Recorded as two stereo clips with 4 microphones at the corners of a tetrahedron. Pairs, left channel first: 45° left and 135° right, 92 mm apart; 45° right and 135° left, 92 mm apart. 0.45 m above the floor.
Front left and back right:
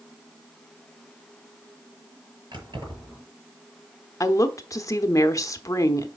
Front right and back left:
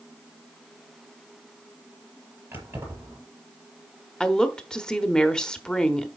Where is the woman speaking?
30° left, 1.0 m.